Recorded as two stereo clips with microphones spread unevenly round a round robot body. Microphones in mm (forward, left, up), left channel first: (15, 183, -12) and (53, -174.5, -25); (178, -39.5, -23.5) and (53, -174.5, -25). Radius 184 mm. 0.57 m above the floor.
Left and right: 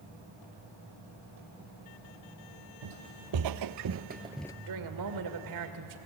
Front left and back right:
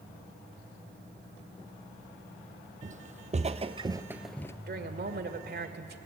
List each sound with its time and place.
2.8 s footsteps: 85° right, 1.3 m; by 4.5 s 65° left, 0.5 m
4.7 s a woman speaking: 115° right, 2 m